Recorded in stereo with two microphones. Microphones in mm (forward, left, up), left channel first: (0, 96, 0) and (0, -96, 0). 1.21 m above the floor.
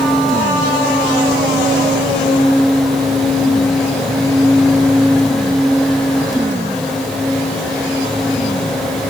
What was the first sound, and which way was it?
Only background noise.